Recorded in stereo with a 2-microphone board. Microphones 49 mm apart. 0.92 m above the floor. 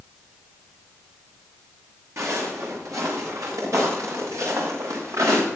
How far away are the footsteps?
About 8.5 m.